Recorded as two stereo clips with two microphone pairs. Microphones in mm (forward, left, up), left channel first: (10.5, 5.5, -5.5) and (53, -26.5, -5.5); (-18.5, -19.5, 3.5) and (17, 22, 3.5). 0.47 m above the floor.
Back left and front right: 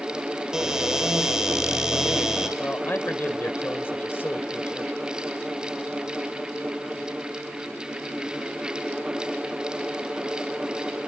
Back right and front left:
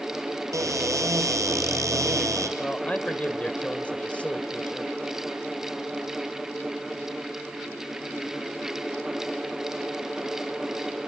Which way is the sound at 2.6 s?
170° left.